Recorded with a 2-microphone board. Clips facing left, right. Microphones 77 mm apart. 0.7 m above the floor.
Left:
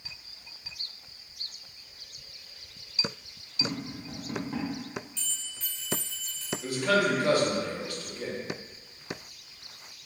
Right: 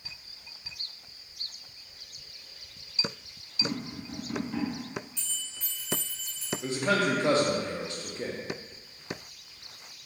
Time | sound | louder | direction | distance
3.6 | tapping | even | 40° left (ahead or behind) | 1.1 m
5.2 | a bell | left 1 dB | 15° right (ahead or behind) | 1.2 m
6.6 | a man speaking | left 1 dB | 25° right (ahead or behind) | 0.5 m